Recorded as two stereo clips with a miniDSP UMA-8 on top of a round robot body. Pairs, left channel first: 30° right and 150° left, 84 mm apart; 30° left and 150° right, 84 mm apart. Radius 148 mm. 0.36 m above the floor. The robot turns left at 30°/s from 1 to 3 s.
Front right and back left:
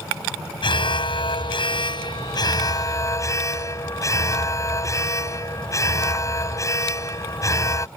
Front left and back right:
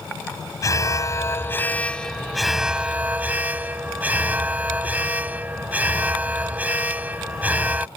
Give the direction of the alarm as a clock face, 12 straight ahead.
1 o'clock.